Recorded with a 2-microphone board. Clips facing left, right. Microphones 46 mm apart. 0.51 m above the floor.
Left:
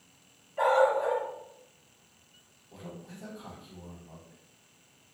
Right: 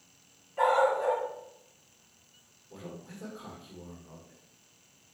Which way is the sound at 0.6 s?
10° right (ahead or behind).